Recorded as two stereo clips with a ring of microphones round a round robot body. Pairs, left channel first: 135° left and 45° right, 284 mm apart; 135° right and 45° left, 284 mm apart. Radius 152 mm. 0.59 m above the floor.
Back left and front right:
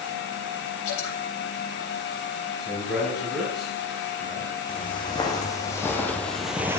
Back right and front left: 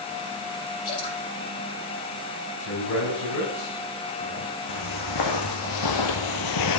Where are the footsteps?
150° right, 2.5 m; by 6.8 s 125° right, 1.0 m.